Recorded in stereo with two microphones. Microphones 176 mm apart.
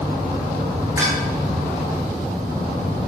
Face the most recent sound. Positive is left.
turn(degrees=-20)  # may be behind; listen again after turning